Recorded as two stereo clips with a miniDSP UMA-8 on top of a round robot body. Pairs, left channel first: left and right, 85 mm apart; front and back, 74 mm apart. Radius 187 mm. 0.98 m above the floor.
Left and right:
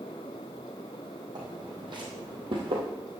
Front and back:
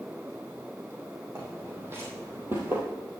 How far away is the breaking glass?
I don't hear breaking glass.